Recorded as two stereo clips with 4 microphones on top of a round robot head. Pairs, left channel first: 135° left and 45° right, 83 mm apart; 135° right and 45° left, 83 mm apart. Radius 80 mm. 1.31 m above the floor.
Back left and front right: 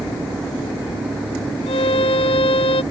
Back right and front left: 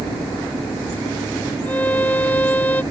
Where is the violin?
155° left.